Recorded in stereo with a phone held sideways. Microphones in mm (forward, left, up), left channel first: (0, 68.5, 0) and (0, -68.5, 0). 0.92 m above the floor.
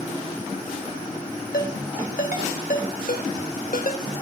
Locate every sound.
1.5 s a ringtone: 85° left, 3 m